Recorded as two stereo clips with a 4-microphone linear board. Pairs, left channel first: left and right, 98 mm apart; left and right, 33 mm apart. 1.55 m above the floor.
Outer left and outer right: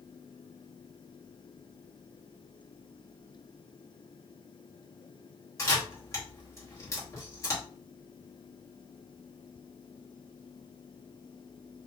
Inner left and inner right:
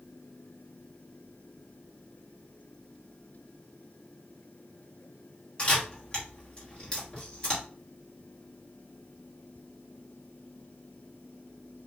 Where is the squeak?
I don't hear a squeak.